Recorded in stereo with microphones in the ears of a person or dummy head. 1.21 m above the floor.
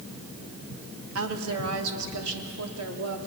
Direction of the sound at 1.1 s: 70° right (ahead or behind).